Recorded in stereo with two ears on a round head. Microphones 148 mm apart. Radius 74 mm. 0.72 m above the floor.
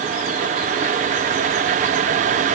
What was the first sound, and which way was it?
Only background noise.